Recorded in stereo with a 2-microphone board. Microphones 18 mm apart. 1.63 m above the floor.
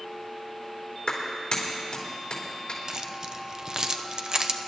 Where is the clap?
60° left (ahead or behind), 3.5 m.